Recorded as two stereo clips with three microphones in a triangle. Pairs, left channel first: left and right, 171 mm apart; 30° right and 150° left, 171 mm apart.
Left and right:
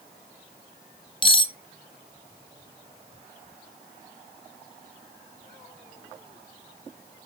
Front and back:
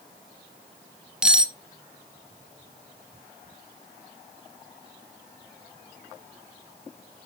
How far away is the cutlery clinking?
About 0.6 m.